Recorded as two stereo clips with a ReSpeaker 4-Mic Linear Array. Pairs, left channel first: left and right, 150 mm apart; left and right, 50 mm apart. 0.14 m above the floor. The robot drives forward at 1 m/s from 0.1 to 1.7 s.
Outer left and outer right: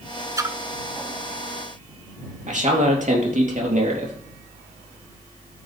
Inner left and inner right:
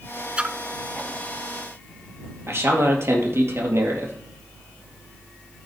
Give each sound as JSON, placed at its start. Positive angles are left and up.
{"t": 0.4, "sound": "a splash", "side_deg": -25, "distance_m": 0.6}
{"t": 2.5, "sound": "a man speaking", "side_deg": -55, "distance_m": 3.5}